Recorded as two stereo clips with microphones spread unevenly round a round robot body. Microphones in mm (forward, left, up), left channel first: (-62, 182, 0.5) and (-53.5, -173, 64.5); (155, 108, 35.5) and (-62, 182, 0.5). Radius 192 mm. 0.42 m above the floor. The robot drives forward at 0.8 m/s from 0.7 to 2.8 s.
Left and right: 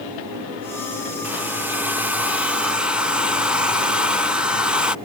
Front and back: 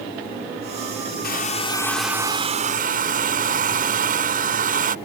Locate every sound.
1.2 s a hair dryer: 10° left; by 5.0 s 175° left